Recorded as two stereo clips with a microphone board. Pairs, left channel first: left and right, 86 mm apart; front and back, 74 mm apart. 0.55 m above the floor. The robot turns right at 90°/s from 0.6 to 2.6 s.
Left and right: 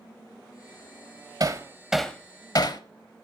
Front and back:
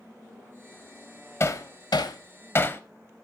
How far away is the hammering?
About 0.6 m.